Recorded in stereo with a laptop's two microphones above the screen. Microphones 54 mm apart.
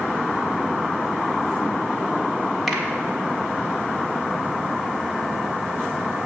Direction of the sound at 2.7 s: Centre (ahead or behind).